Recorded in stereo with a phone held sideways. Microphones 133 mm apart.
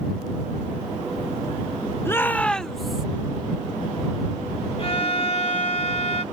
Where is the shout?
20° left (ahead or behind); by 3.0 s 5° right (ahead or behind).